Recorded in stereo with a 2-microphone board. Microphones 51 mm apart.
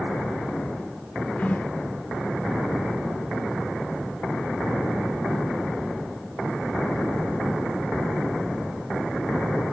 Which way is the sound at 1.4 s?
35° left (ahead or behind).